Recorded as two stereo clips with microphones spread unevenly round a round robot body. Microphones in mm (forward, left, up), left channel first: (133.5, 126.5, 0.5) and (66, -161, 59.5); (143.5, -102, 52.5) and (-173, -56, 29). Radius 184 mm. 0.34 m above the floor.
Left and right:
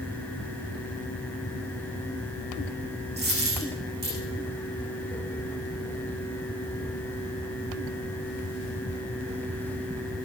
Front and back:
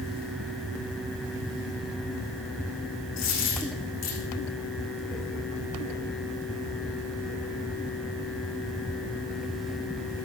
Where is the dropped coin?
45° right, 6.5 m.